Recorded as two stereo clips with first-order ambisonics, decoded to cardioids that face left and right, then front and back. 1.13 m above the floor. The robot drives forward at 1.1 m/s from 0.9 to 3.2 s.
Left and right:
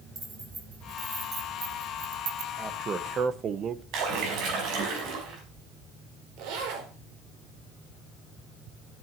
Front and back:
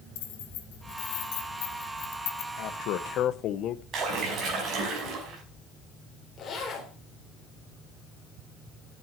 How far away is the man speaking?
About 1.4 m.